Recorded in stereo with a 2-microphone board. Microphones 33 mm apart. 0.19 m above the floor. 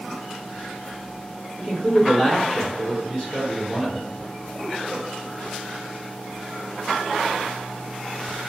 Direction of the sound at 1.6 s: 30° left (ahead or behind).